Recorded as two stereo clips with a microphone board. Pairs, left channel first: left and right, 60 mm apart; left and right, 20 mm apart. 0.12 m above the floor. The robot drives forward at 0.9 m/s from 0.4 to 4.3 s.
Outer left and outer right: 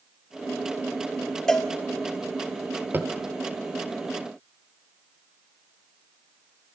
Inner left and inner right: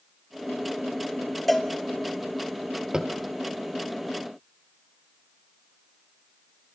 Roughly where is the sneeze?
I don't hear a sneeze.